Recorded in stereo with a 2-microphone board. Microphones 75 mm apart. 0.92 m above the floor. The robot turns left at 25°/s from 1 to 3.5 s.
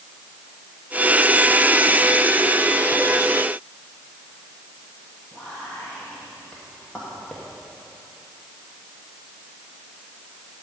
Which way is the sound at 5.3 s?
15° left (ahead or behind).